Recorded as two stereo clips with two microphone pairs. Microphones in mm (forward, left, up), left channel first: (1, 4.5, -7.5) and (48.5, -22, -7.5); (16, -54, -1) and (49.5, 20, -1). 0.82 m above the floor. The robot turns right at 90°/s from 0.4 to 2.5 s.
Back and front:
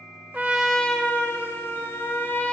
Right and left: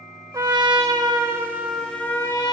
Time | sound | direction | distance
0.3 | a trumpet | 30° left | 1.1 m